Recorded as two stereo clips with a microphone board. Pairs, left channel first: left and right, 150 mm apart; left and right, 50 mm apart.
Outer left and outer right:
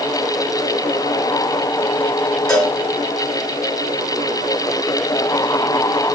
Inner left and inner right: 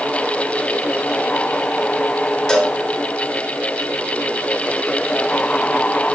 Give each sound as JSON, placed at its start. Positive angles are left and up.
{"t": 2.5, "sound": "a cowbell", "side_deg": 5, "distance_m": 2.5}